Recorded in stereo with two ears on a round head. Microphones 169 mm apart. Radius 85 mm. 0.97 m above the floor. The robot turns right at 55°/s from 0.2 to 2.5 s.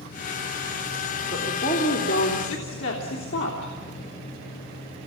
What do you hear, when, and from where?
1.3 s a woman speaking: 5° left, 3 m; by 3.7 s 70° left, 3 m